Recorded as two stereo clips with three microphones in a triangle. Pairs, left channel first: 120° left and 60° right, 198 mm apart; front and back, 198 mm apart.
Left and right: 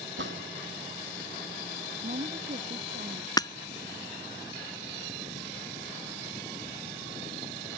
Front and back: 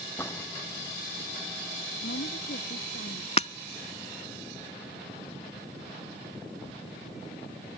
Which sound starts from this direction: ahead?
A woman speaking, at 2.0 s.